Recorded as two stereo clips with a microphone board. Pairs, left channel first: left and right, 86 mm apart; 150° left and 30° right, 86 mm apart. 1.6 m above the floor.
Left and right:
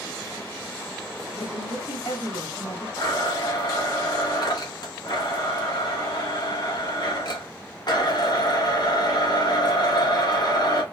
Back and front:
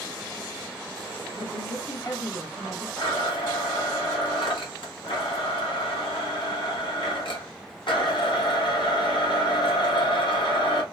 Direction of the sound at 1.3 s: 115° left.